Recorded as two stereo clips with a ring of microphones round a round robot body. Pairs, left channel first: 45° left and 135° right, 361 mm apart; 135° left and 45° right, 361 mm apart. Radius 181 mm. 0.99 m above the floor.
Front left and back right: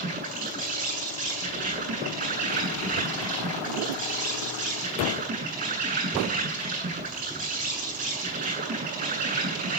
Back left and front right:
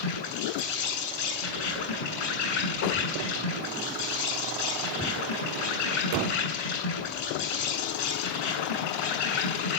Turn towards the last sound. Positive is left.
turn(degrees=155)